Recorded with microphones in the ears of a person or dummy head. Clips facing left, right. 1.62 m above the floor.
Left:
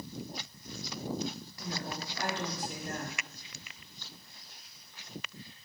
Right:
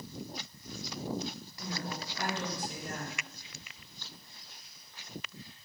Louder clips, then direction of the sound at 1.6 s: Even; 50° right (ahead or behind).